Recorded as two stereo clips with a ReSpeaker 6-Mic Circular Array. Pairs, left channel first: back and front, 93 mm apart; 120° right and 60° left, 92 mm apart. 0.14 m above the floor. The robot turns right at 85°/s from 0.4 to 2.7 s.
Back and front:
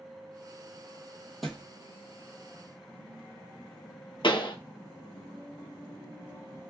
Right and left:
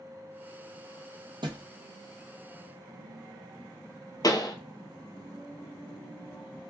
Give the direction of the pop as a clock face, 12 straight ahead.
5 o'clock.